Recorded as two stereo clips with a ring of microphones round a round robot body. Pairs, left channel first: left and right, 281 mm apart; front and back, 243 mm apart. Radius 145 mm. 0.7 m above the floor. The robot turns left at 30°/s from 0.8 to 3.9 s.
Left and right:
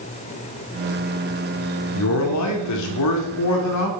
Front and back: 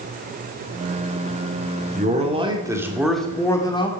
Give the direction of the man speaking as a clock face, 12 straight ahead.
8 o'clock.